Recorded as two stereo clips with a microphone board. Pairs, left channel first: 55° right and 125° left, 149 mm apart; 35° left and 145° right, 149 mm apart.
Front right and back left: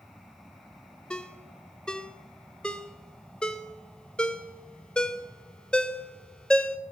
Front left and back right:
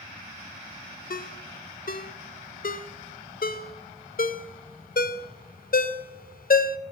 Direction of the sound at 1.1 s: 30° left.